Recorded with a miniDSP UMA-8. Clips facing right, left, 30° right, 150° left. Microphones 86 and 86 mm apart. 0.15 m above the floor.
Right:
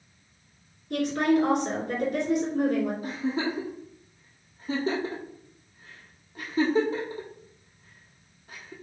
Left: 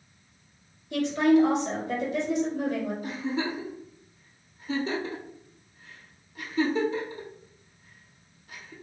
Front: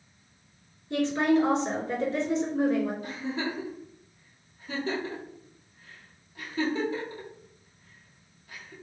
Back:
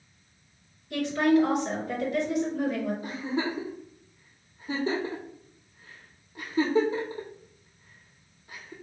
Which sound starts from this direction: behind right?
A giggle, at 3.0 s.